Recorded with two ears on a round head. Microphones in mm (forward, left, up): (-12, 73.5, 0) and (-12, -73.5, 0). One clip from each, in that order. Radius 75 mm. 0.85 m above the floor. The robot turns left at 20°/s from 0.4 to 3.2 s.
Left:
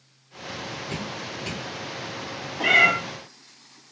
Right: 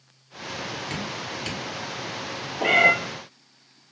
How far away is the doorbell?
No doorbell in this recording.